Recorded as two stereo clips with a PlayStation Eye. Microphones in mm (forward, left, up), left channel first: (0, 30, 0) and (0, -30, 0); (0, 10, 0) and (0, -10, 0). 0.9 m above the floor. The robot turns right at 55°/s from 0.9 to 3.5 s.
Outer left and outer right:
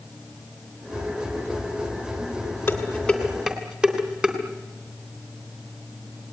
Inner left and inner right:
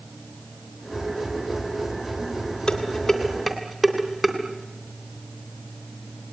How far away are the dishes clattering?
About 3 m.